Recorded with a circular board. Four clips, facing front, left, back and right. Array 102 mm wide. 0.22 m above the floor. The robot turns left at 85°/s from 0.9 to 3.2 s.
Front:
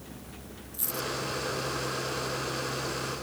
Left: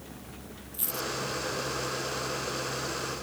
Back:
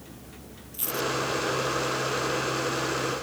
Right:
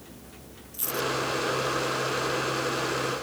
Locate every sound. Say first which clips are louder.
0.7 s a dropped coin: right 6 dB, back 6 dB; 170° right; by 1.1 s 175° left